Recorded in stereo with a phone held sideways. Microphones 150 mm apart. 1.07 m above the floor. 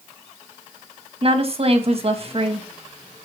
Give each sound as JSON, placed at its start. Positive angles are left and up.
{"t": 1.2, "sound": "a woman speaking", "side_deg": -45, "distance_m": 1.3}